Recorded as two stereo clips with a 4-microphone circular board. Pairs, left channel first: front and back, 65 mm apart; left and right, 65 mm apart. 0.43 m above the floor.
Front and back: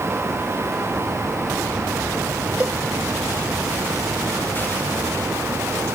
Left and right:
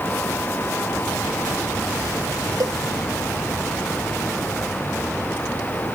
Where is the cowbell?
110° right.